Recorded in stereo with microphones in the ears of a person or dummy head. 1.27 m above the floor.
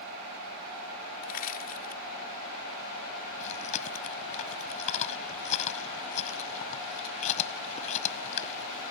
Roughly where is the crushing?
Left.